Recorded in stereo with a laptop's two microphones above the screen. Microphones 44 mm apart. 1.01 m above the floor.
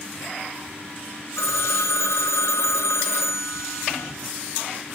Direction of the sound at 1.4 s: 85° left.